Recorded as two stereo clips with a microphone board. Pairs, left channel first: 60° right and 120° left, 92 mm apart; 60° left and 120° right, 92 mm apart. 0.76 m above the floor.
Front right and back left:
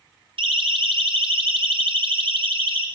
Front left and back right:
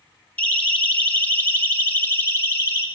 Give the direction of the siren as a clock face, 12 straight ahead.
8 o'clock.